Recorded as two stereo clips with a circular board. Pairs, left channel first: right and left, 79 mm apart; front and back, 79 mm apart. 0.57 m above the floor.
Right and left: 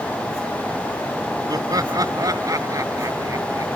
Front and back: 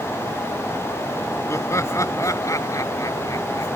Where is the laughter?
55° left; by 3.8 s 45° left.